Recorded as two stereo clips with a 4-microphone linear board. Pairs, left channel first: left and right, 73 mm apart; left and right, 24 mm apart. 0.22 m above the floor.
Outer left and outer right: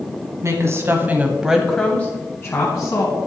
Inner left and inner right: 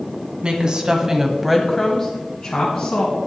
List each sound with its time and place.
0.4 s a woman speaking: 40° right (ahead or behind), 1.6 m; by 3.2 s 45° left (ahead or behind), 2.0 m